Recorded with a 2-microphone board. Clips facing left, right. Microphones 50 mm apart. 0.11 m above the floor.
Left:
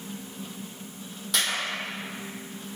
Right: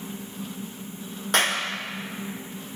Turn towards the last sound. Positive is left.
turn(degrees=-45)  # may be behind; listen again after turning